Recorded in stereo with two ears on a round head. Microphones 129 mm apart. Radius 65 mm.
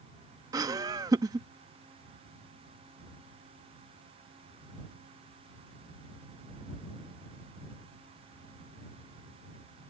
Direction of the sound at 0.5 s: 25° right (ahead or behind).